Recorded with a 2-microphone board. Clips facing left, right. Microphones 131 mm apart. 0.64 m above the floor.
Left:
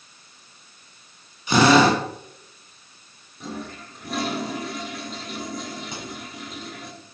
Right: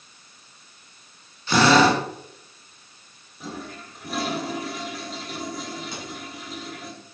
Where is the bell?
No bell in this recording.